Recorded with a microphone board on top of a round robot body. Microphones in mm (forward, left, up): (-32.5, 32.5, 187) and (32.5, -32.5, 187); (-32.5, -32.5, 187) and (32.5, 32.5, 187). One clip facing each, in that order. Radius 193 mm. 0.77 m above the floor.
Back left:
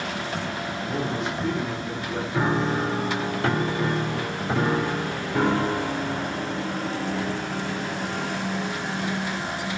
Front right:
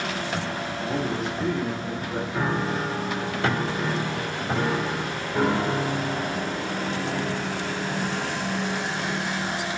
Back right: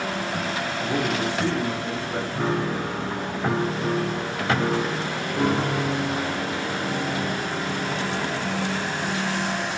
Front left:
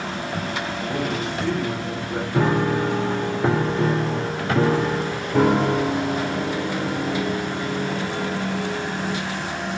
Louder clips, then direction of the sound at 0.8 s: Front right 1 dB, back right 2 dB; 110° right.